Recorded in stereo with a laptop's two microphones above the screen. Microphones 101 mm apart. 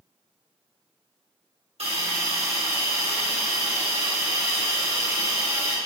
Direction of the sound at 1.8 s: 80° right.